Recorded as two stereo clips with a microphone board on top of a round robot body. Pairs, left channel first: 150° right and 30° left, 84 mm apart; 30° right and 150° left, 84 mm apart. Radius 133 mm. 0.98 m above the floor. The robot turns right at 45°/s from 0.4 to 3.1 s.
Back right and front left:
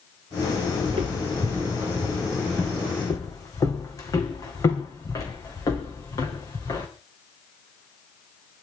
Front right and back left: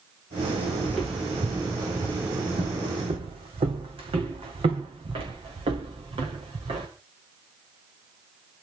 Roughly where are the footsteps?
Ahead left.